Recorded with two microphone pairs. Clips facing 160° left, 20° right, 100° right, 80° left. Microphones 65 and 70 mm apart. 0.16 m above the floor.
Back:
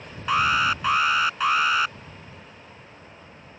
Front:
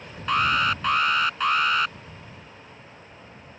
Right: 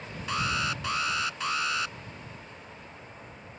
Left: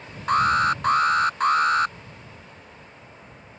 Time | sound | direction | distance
0.3 | an alarm | 75° left | ?